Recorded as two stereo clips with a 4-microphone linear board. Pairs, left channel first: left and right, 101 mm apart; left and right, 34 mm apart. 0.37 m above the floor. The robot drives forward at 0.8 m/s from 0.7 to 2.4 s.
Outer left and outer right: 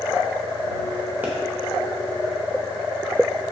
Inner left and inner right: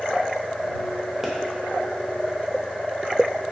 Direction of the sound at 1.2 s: 20° right (ahead or behind).